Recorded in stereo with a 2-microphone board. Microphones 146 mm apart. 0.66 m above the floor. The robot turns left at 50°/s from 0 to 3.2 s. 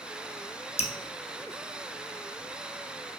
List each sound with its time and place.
0.8 s dripping: 45° left (ahead or behind), 0.7 m; by 0.9 s 40° left (ahead or behind), 0.7 m